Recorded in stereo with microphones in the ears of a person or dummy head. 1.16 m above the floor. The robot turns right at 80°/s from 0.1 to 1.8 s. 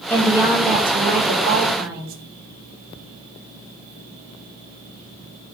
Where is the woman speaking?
165° left, 0.6 m; by 2.2 s 60° right, 0.6 m.